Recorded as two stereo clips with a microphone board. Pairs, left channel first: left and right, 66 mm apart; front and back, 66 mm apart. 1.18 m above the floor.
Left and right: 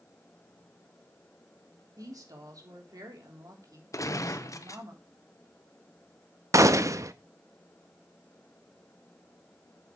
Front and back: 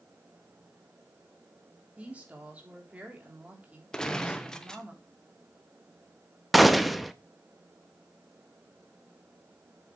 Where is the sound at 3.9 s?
75° left, 0.9 m.